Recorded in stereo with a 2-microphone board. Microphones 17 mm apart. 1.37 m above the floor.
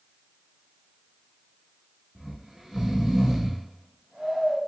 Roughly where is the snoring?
Right.